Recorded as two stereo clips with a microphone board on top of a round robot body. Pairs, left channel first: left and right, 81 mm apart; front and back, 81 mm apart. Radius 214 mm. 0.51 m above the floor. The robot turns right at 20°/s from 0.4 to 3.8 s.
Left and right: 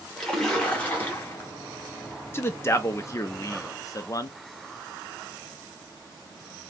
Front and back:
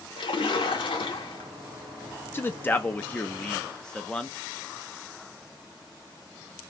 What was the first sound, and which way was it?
A splash, 5° left.